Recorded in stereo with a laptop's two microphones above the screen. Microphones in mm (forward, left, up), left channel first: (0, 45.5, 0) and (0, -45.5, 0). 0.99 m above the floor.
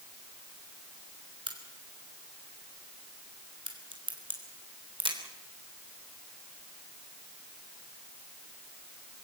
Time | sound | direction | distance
1.5 | a crack | 65° right (ahead or behind) | 3.5 m